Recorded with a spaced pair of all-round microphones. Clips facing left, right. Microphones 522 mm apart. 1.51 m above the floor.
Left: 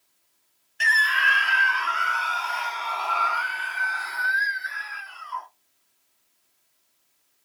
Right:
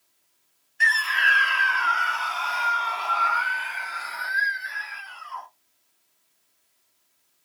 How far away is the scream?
About 0.5 m.